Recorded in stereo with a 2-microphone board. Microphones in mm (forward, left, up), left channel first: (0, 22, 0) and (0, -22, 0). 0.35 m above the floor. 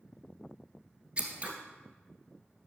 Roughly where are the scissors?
Right.